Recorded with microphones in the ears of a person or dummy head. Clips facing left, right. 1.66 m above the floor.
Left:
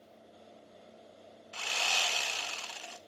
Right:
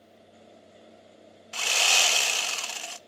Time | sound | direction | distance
1.5 | sawing | 55° right (ahead or behind) | 0.6 m